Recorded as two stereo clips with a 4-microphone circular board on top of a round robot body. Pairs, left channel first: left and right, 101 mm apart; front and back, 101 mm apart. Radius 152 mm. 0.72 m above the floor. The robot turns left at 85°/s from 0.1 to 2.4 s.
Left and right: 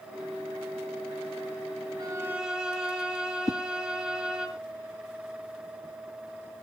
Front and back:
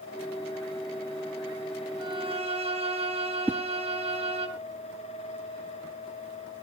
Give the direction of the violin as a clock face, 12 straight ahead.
5 o'clock.